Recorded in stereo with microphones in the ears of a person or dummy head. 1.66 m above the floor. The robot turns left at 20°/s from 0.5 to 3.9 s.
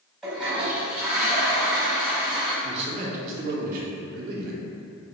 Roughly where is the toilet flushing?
Ahead.